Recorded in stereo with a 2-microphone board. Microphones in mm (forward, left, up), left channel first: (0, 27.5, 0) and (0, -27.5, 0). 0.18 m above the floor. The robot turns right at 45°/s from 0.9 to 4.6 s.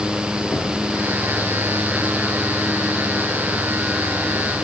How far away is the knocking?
About 5.5 m.